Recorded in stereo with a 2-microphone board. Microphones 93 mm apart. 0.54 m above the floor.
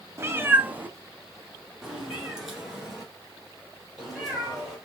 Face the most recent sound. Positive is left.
turn(degrees=0)  # may be behind; listen again after turning